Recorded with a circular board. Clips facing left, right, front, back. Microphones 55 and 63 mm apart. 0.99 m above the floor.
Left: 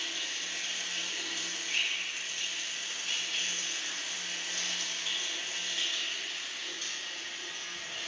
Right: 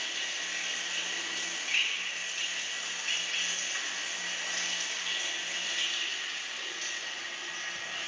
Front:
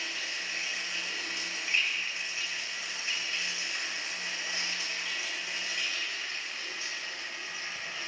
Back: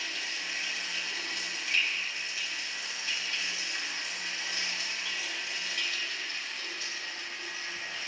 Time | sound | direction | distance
0.0 | running water | 65° right | 3.5 m